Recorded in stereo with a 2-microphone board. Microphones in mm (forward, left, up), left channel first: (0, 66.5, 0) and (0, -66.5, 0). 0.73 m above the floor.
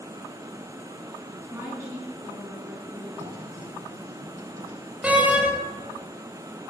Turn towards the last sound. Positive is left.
turn(degrees=-10)  # may be behind; listen again after turning